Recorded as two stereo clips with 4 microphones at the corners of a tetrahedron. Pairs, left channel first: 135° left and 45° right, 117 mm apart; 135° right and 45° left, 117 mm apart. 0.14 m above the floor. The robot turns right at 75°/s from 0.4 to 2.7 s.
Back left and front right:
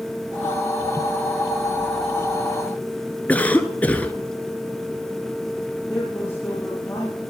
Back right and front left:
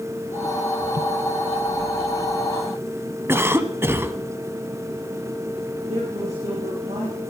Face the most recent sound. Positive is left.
turn(degrees=70)